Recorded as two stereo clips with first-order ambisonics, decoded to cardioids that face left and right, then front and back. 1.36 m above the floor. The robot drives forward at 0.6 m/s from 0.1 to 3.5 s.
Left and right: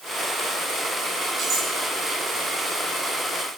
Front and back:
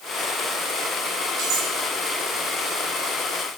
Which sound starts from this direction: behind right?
Cutlery clinking, at 1.4 s.